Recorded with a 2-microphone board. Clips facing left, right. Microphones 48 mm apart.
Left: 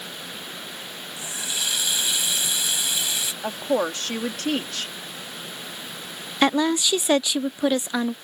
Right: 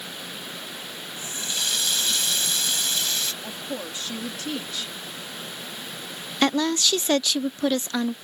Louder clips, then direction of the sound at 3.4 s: Left 10 dB; 60° left (ahead or behind).